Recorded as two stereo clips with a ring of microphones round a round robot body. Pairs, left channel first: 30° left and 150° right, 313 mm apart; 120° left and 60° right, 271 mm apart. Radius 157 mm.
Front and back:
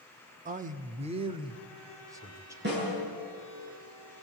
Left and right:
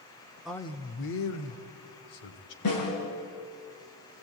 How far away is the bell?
No bell in this recording.